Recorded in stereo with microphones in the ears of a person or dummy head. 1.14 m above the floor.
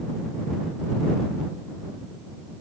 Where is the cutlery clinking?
I don't hear cutlery clinking.